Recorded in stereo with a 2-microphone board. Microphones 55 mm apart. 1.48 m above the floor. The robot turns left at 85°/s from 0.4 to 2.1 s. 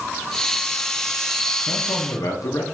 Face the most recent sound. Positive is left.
turn(degrees=90)